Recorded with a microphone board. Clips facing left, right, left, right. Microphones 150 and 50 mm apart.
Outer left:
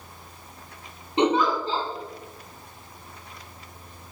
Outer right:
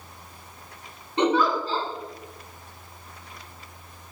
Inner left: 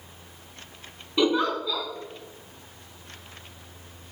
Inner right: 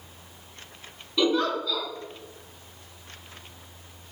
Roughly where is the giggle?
Centre.